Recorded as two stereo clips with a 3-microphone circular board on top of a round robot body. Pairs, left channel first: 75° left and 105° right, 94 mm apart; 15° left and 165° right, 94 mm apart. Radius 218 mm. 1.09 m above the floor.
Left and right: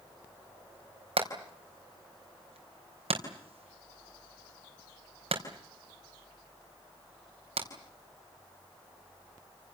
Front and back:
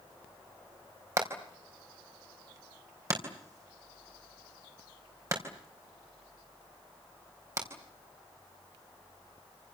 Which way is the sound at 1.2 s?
105° right.